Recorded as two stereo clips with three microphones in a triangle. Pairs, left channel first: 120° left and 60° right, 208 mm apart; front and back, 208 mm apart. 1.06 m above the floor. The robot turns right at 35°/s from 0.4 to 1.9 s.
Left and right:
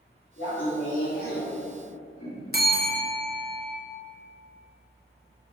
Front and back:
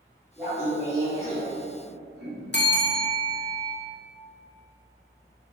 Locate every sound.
0.4 s laughter: 95° left, 1.9 m; by 2.4 s 145° left, 1.9 m
2.5 s a bell: 25° right, 0.7 m